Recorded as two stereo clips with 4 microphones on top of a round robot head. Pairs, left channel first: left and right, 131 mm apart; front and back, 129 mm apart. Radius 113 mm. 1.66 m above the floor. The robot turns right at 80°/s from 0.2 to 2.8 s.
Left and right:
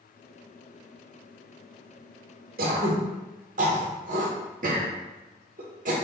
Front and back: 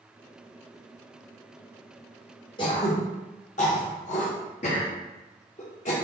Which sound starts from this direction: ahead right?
Throat clearing, at 2.6 s.